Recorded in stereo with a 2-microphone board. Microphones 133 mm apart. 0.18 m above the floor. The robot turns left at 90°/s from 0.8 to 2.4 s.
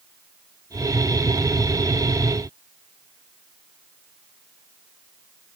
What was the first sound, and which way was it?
Only background noise.